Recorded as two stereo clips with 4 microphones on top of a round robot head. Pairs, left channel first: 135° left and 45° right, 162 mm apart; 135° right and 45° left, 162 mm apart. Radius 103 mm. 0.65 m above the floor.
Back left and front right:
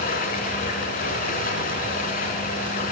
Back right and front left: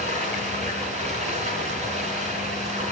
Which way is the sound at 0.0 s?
95° left.